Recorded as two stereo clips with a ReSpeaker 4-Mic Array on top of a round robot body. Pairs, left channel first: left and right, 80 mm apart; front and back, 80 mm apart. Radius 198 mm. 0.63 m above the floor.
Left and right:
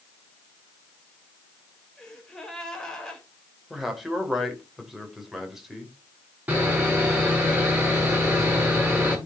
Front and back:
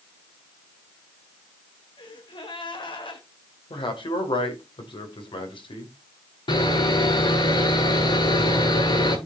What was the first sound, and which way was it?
A gasp, 5° left.